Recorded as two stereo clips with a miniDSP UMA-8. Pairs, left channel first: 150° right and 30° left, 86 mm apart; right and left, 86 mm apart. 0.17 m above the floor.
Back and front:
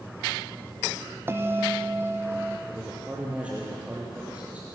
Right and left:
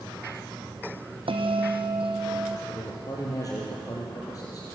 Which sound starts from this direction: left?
A bell, at 1.3 s.